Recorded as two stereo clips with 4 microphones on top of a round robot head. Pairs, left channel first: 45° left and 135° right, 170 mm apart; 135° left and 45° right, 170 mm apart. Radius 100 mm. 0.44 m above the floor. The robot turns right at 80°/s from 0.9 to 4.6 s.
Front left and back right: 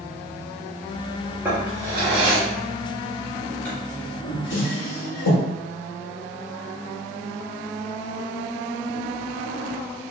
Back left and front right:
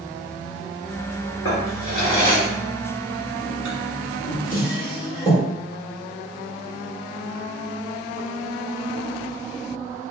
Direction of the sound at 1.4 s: 145° left.